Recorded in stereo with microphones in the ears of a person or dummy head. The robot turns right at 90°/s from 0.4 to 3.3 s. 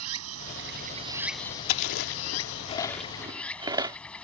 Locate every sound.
0.0 s running water: 85° right; by 4.2 s 175° left
1.7 s chewing: 60° left (ahead or behind); by 4.0 s 25° right (ahead or behind)